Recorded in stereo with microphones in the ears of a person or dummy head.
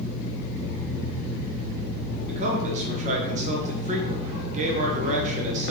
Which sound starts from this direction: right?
A man speaking, at 2.3 s.